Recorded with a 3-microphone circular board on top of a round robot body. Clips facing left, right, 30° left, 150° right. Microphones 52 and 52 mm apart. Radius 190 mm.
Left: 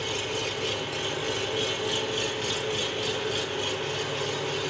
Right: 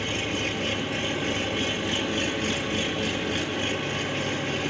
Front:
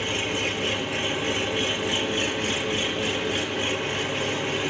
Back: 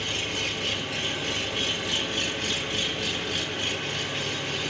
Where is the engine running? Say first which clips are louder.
Right 2 dB, front 4 dB; 40° right, 4.5 m.